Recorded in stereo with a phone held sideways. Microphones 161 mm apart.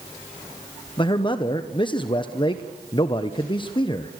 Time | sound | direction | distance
1.0 | a man speaking | 30° left (ahead or behind) | 1.0 m